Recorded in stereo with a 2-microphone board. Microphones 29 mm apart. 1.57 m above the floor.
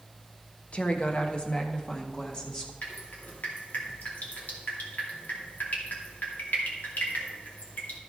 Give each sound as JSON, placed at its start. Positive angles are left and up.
{"t": 0.7, "sound": "a woman speaking", "side_deg": 45, "distance_m": 1.0}
{"t": 2.8, "sound": "dripping", "side_deg": 75, "distance_m": 2.5}